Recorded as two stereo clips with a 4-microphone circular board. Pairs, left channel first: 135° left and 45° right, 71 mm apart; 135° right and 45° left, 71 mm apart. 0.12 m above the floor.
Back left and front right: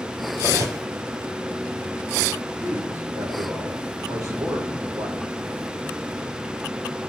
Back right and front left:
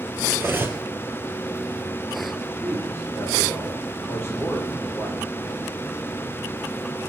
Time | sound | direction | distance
0.3 | cutlery clinking | 10° right | 1.7 m
2.6 | a man speaking | 80° right | 5.5 m